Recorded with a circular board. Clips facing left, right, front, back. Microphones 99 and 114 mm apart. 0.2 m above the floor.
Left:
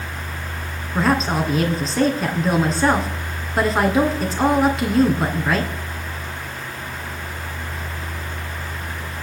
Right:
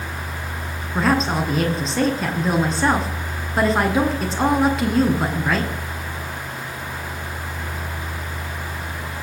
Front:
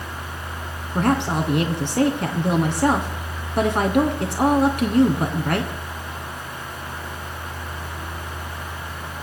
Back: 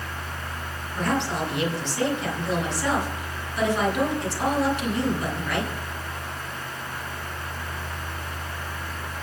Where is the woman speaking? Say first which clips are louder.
Even, front 5 dB; straight ahead, 2.0 m.